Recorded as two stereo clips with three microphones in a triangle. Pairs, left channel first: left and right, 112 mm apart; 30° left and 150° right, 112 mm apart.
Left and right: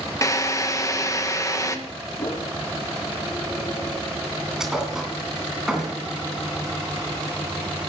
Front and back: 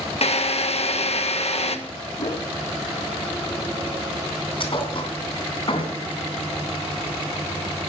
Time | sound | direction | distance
0.2 | a drill | 30° left | 1.3 m
2.2 | a whoosh | 45° left | 1.5 m
4.6 | a thud | 5° right | 2.5 m